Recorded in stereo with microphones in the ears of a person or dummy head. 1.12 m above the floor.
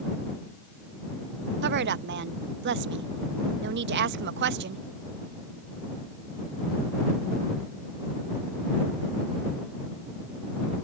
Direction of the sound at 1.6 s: 55° right (ahead or behind).